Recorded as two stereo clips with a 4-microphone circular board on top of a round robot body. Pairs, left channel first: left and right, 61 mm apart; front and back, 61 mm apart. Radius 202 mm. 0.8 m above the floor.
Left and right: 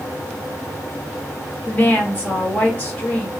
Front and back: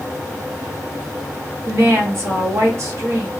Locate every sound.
1.7 s a woman speaking: 150° left, 1.6 m